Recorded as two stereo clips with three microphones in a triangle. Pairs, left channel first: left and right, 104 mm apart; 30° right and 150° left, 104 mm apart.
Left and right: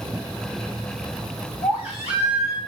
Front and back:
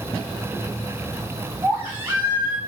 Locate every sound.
1.6 s a baby crying: 80° left, 6 m